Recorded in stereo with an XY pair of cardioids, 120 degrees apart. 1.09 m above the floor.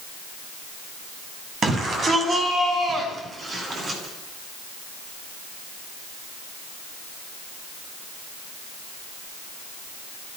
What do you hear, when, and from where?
1.6 s a shout: 40° right, 7 m; by 4.0 s 35° right, 9 m